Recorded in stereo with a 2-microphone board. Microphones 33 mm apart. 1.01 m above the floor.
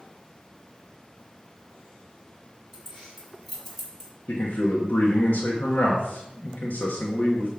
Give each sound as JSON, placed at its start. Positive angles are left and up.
{"t": 2.7, "sound": "keys jangling", "side_deg": 0, "distance_m": 3.5}
{"t": 4.3, "sound": "a man speaking", "side_deg": 65, "distance_m": 1.3}